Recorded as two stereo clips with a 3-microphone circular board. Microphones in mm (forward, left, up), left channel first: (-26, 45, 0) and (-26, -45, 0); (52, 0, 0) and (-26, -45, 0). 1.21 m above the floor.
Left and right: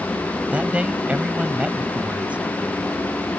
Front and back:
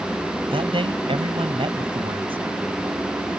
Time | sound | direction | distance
0.5 | a man speaking | 165° right | ?